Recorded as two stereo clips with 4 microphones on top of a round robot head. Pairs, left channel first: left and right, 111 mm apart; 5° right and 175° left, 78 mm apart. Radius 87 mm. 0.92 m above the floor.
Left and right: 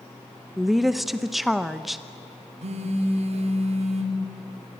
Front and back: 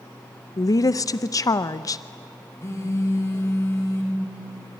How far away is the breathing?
No breathing in this recording.